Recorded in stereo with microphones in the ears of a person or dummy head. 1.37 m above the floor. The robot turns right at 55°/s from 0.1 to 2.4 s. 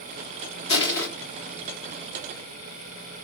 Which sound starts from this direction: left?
Crushing, at 0.7 s.